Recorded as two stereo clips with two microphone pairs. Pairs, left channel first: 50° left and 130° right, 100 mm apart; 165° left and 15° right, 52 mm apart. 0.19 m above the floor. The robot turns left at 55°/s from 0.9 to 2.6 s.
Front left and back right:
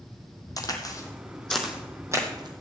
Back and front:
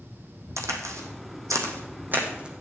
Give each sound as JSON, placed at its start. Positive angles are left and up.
{"t": 0.6, "sound": "a crack", "azimuth_deg": 0, "distance_m": 1.6}